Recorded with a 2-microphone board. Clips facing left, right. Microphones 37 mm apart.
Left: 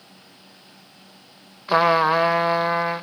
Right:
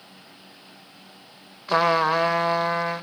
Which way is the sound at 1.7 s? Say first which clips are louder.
Left 3 dB; 10° left (ahead or behind).